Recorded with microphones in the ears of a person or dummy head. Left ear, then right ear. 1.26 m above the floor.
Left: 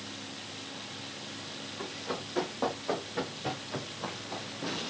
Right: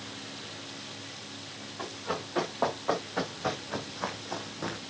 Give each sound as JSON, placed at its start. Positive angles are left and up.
{"t": 1.8, "sound": "running footsteps", "side_deg": -20, "distance_m": 6.0}